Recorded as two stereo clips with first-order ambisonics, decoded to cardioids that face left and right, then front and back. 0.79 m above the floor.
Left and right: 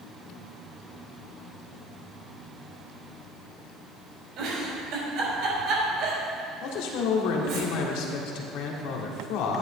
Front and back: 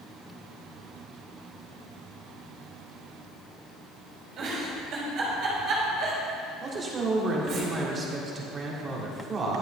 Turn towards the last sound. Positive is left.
turn(degrees=110)